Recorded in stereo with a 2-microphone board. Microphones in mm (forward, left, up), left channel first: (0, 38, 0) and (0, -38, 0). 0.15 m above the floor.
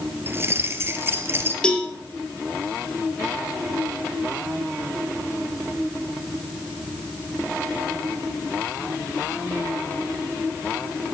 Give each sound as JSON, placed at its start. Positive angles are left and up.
{"t": 0.3, "sound": "keys jangling", "side_deg": -30, "distance_m": 1.9}
{"t": 1.6, "sound": "a cowbell", "side_deg": 15, "distance_m": 3.0}